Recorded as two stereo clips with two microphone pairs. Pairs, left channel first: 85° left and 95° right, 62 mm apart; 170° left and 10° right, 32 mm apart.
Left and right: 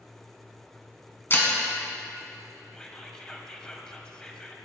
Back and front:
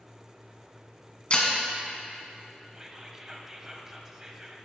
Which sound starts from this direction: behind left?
Breaking glass, at 1.3 s.